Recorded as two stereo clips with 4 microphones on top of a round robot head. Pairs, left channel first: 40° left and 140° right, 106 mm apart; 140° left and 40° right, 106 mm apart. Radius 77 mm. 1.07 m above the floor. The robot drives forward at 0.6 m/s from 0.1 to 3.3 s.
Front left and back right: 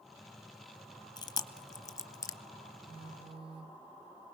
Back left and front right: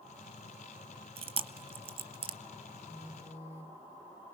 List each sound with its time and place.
1.2 s chewing: 10° right, 1.9 m; by 2.4 s 20° right, 1.2 m
2.9 s a phone buzzing: 100° right, 1.7 m; by 3.8 s 105° right, 1.8 m